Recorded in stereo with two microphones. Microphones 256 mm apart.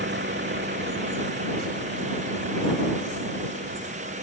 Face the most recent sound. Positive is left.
turn(degrees=-40)  # may be behind; listen again after turning